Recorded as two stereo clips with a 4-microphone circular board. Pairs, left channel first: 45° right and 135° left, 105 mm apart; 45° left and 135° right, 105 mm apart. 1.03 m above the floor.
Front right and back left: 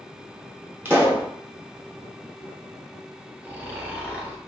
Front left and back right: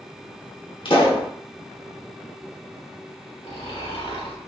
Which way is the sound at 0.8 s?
65° left.